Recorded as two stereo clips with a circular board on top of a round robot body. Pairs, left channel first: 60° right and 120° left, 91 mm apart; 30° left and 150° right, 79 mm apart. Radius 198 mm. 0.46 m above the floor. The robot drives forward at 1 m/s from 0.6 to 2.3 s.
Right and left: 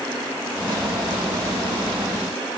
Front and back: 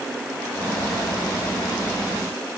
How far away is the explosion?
No explosion in this recording.